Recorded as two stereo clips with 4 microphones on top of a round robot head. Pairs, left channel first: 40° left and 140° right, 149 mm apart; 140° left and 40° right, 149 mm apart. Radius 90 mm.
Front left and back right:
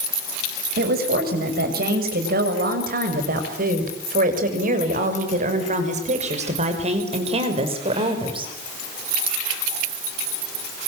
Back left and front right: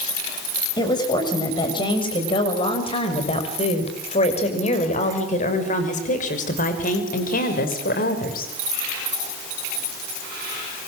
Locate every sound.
0.8 s a woman speaking: 155° right, 7 m; by 8.5 s 165° left, 5.5 m